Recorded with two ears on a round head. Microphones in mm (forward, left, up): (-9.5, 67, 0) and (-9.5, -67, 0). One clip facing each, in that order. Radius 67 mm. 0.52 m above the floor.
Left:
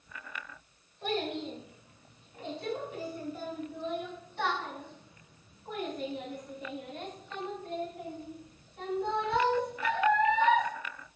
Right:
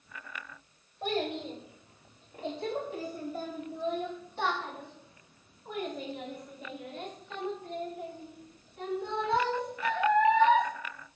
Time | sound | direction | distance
1.0 | a child speaking | 25° right (ahead or behind) | 1.6 m